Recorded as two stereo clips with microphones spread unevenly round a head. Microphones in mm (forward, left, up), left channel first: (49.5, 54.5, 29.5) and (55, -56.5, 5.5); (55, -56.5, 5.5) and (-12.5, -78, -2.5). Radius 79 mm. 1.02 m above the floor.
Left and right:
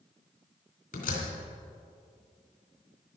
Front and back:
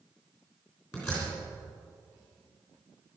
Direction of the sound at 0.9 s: 95° left.